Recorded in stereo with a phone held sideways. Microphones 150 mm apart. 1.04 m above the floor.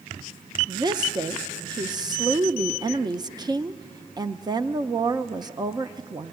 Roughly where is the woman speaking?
Right.